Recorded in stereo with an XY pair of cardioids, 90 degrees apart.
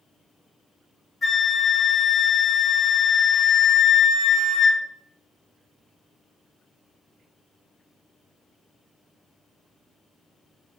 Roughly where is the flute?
Ahead left.